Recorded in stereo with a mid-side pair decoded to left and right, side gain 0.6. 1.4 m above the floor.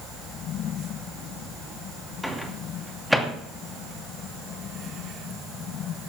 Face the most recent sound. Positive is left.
turn(degrees=0)